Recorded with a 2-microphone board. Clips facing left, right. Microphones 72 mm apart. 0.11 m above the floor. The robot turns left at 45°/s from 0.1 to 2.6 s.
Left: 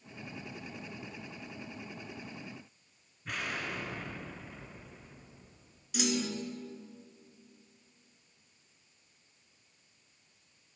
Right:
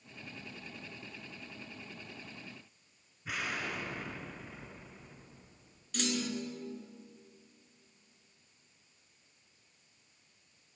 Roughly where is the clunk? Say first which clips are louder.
Left 2 dB; centre.